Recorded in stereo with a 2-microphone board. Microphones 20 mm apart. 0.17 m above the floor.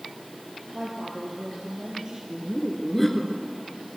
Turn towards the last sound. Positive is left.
turn(degrees=5)  # may be behind; listen again after turning